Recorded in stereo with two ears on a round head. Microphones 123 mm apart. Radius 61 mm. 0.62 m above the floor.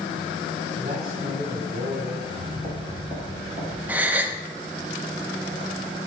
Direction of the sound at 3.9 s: 10° right (ahead or behind).